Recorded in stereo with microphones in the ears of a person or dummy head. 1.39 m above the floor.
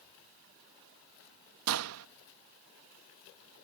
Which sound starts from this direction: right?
A gunshot, at 1.7 s.